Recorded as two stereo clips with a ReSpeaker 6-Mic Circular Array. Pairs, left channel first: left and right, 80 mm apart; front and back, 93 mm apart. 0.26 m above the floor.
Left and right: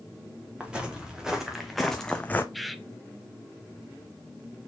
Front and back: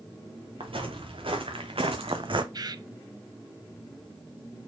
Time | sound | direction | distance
0.6 | footsteps | 165° right | 2.5 m
2.5 | a bird | straight behind | 0.5 m